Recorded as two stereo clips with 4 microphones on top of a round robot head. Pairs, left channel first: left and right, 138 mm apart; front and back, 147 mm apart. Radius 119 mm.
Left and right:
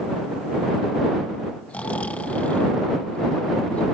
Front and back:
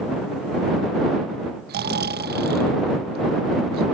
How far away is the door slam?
I don't hear a door slam.